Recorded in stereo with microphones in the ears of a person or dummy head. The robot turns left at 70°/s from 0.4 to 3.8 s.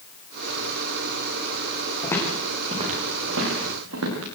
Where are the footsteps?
25° left (ahead or behind), 9 m; by 4.2 s 80° right, 9.5 m.